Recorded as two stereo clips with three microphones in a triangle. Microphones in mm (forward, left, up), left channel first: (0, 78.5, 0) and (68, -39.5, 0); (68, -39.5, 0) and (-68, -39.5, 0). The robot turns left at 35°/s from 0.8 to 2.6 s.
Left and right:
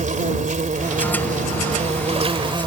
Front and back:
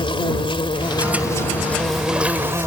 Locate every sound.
0.0 s an insect: 50° right; by 2.7 s 110° right